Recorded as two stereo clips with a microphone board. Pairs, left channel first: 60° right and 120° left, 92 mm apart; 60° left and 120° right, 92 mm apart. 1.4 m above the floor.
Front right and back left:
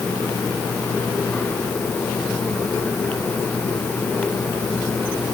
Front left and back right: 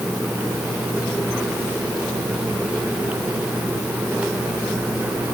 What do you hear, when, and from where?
Only background noise.